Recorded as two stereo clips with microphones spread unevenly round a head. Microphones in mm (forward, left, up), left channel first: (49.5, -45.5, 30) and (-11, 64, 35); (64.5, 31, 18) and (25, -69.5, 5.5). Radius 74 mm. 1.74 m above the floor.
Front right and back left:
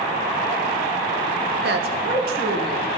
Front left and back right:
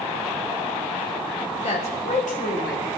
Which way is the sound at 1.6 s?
120° left.